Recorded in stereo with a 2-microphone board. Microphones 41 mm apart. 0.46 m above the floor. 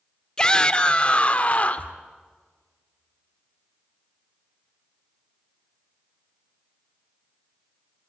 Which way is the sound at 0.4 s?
20° left (ahead or behind).